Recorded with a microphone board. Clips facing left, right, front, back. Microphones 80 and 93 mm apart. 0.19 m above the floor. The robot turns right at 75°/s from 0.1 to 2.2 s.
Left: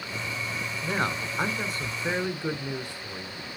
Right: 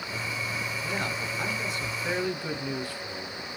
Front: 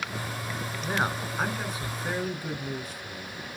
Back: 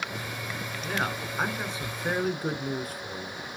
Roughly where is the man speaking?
Ahead left.